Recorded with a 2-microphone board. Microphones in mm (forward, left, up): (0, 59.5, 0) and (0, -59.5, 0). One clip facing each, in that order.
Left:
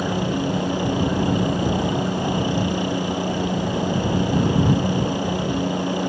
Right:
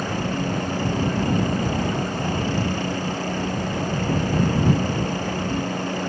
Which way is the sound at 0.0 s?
15° left (ahead or behind).